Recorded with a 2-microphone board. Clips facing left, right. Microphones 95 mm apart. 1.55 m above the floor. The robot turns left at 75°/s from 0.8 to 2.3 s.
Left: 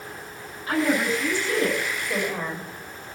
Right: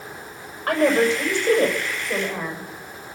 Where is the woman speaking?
55° right, 7 m; by 2.6 s 165° right, 7 m.